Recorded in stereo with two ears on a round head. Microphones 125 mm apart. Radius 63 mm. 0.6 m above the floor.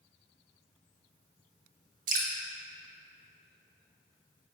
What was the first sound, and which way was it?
Dripping, 65° right (ahead or behind).